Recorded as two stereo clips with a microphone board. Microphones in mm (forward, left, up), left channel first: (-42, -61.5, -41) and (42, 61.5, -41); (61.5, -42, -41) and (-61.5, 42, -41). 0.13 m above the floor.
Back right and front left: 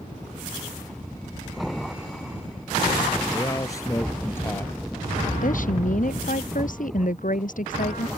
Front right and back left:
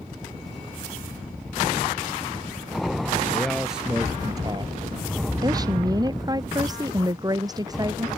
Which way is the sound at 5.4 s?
150° right.